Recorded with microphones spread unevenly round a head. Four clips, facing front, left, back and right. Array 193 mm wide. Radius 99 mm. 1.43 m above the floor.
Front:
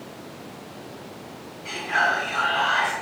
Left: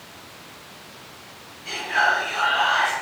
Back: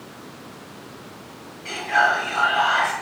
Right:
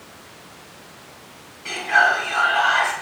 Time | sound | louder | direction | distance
1.6 | whispering | right 4 dB, back 4 dB | 120° right | 3.5 m